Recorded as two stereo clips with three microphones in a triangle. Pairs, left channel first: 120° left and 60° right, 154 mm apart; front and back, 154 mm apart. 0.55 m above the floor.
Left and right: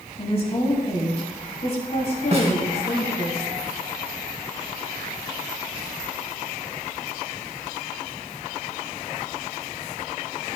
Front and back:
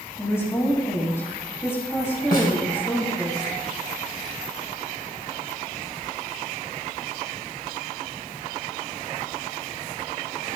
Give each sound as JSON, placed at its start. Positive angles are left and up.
{"t": 0.2, "sound": "a woman speaking", "azimuth_deg": 75, "distance_m": 3.0}
{"t": 2.3, "sound": "a snare drum", "azimuth_deg": -15, "distance_m": 2.5}